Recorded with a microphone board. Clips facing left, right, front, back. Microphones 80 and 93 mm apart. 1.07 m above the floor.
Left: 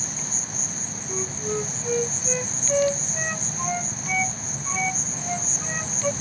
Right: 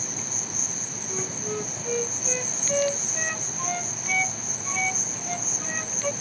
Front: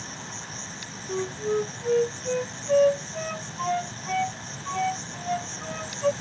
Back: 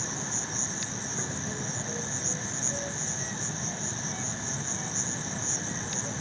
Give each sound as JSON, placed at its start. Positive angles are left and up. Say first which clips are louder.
{"t": 0.0, "sound": "an insect", "louder": "left 1 dB, back 3 dB", "azimuth_deg": -120}
{"t": 1.1, "sound": "a flute", "louder": "left 3 dB, front 14 dB", "azimuth_deg": 10}